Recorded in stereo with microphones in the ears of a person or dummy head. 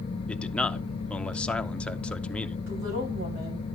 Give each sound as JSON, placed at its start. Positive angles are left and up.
{"t": 0.3, "sound": "a man speaking", "side_deg": 5, "distance_m": 0.6}
{"t": 2.7, "sound": "a woman speaking", "side_deg": -80, "distance_m": 6.5}